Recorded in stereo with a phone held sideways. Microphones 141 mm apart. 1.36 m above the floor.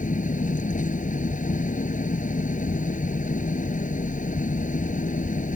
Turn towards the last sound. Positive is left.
turn(degrees=65)  # may be behind; listen again after turning